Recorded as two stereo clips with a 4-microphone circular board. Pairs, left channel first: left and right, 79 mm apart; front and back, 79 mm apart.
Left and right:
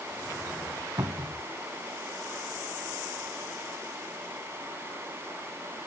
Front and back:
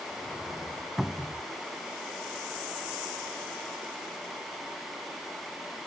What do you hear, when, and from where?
1.0 s a cupboard door: 90° right, 0.7 m